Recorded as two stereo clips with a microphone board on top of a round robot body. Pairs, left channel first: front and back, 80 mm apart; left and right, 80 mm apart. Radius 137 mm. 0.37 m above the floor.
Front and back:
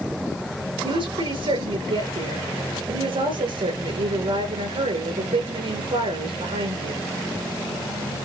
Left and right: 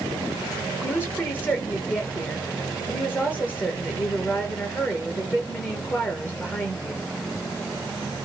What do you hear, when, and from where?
0.8 s a woman speaking: 160° left, 8 m